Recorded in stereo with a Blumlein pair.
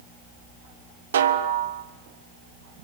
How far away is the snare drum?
About 1.3 m.